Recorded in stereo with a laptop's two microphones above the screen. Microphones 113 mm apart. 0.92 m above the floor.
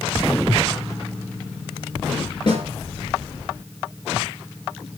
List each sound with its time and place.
2.5 s a snare drum: 45° left (ahead or behind), 3 m